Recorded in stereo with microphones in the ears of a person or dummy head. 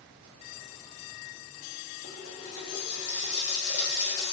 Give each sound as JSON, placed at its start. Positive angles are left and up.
{"t": 2.0, "sound": "a running tap", "side_deg": 25, "distance_m": 0.6}